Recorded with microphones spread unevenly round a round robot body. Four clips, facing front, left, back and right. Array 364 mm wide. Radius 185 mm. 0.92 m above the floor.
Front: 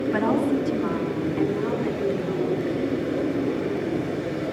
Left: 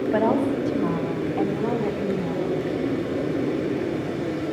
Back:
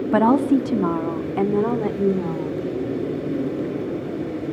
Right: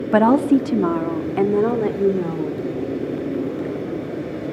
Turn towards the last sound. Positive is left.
turn(degrees=-125)